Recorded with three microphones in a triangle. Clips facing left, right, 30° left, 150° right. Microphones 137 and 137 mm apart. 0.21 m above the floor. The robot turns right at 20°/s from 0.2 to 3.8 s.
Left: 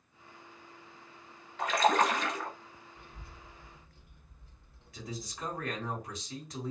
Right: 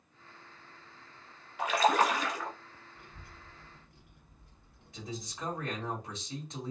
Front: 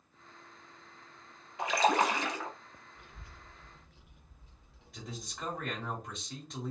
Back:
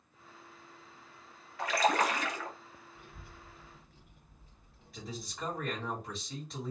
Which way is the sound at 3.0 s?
125° right.